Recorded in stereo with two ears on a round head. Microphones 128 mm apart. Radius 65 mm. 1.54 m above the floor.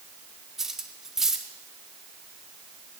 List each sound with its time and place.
0.6 s cutlery clinking: 5° right (ahead or behind), 1.9 m